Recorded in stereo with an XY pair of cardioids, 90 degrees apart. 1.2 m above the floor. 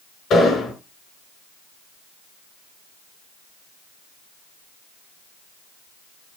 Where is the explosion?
65° left, 6.5 m.